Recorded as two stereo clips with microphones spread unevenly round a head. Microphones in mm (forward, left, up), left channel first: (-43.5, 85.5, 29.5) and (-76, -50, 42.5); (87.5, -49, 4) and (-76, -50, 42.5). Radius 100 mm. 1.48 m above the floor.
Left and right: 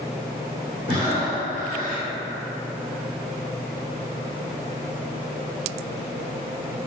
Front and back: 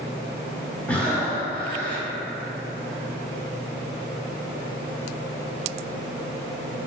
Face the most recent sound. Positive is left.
turn(degrees=-95)